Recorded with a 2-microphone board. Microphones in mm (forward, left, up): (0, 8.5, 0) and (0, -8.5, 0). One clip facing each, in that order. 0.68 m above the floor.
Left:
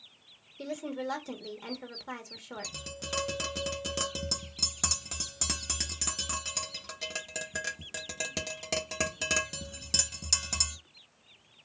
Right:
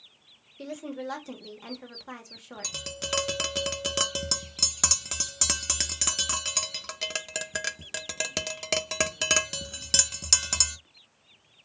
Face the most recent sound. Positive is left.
turn(degrees=-30)  # may be behind; listen again after turning